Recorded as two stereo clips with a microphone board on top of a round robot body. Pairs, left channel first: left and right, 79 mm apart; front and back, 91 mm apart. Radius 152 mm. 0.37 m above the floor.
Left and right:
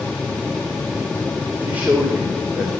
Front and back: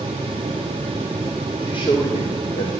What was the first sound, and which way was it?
A man speaking, 25° right.